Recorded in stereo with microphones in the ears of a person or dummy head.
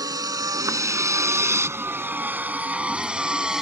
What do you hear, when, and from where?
0.0 s a vehicle: 15° right (ahead or behind); by 3.6 s 5° left (ahead or behind)